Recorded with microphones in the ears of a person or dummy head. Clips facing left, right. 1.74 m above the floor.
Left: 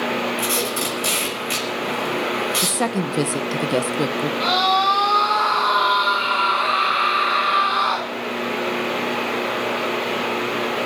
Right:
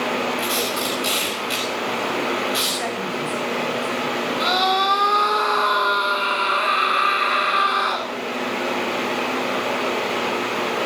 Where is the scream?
30° right (ahead or behind), 4.5 m.